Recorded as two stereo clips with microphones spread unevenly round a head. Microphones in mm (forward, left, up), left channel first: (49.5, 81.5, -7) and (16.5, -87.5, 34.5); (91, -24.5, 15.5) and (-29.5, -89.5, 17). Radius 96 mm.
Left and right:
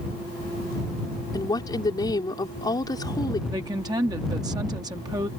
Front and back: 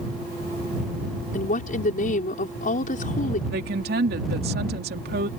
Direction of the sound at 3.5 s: 170° right.